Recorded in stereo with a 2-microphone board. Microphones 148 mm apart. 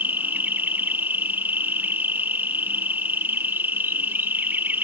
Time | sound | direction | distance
0.0 | an insect | 15° right (ahead or behind) | ?